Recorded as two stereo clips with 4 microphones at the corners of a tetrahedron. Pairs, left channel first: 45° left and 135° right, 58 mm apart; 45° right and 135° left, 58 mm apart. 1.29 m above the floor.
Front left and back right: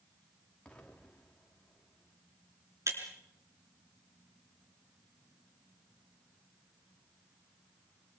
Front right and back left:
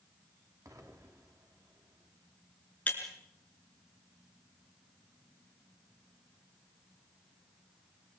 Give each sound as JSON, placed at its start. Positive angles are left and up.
{"t": 0.7, "sound": "an explosion", "azimuth_deg": 115, "distance_m": 3.5}
{"t": 2.9, "sound": "breaking glass", "azimuth_deg": -105, "distance_m": 3.5}